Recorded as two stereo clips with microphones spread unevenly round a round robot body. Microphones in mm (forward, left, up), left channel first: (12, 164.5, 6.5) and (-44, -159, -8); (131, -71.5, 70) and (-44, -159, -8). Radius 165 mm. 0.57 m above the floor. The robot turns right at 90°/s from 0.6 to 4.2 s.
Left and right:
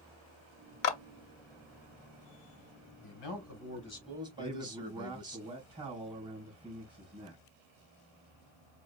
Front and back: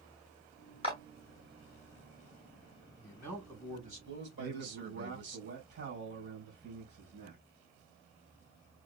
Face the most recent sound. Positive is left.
turn(degrees=-175)